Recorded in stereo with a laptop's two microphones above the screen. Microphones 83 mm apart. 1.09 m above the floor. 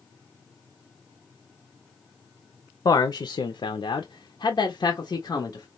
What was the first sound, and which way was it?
A man speaking, 60° left (ahead or behind).